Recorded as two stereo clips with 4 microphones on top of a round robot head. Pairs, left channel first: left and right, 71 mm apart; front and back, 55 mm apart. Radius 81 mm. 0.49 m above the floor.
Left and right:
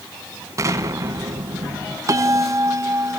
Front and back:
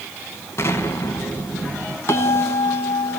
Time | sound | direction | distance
0.6 | an explosion | 40° right | 2.0 m
2.1 | a bell | 45° right | 1.8 m